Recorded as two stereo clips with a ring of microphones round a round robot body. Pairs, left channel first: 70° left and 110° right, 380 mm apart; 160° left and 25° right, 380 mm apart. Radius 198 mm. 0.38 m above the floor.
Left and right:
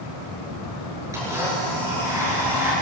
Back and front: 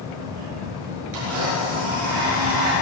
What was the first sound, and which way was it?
A blender, 30° right.